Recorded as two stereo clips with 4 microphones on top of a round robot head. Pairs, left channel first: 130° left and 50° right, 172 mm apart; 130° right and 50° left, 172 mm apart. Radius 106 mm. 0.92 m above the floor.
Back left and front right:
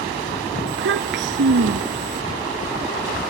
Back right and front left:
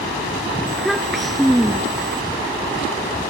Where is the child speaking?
40° right.